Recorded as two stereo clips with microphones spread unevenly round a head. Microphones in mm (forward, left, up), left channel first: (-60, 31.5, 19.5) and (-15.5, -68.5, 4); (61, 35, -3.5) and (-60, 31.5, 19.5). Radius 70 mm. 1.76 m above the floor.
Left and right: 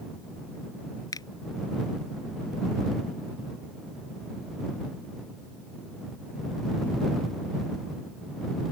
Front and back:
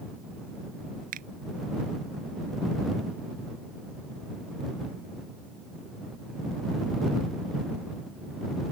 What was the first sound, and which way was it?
A finger snap, 170° left.